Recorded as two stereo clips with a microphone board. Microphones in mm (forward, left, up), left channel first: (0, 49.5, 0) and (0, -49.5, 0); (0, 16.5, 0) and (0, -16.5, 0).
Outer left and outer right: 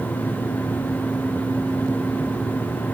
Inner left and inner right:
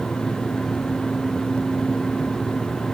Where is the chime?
No chime in this recording.